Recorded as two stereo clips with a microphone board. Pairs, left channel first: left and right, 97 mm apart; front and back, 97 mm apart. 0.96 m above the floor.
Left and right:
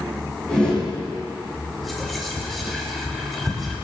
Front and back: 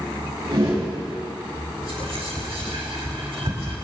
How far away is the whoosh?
About 5.5 m.